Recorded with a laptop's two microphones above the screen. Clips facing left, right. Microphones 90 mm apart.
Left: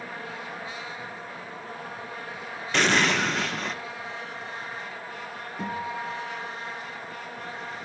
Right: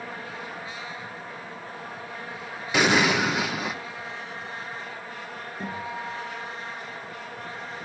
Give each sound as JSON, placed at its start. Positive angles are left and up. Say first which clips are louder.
{"t": 2.7, "sound": "an explosion", "louder": "right 2 dB", "side_deg": -10, "distance_m": 0.5}
{"t": 5.6, "sound": "a guitar", "louder": "left 2 dB", "side_deg": 80, "distance_m": 8.0}